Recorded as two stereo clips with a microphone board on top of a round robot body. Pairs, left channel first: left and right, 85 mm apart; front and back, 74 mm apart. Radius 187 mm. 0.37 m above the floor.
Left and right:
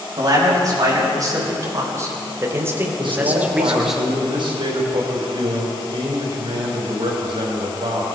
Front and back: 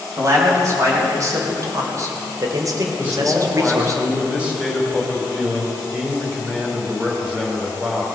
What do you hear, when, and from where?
0.2 s a man speaking: 135° right, 5 m; by 4.0 s straight behind, 1.8 m
3.0 s a man speaking: 105° right, 3.5 m